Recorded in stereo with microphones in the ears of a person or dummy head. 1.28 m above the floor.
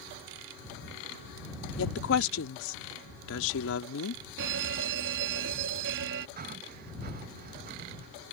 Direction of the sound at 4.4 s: 65° right (ahead or behind).